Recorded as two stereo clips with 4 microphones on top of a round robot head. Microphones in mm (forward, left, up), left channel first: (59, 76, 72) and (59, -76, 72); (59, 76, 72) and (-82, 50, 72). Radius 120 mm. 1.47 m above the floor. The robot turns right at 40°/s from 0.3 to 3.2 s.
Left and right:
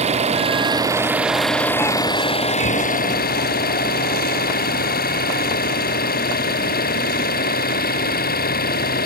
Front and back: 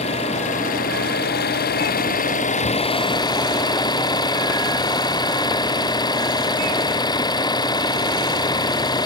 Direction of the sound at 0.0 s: 45° right.